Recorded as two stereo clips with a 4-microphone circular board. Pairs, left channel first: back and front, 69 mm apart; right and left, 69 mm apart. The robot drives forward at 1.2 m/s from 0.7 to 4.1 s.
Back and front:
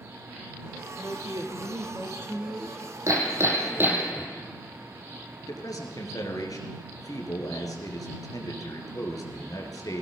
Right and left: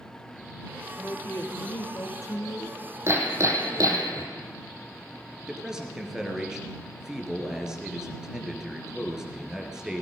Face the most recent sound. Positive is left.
turn(degrees=170)